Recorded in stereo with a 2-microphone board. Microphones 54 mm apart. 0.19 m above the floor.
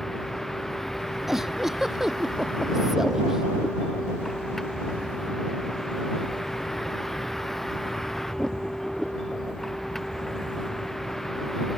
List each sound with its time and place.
0.0 s a vehicle: 5° left (ahead or behind)
1.3 s a giggle: 10° right (ahead or behind)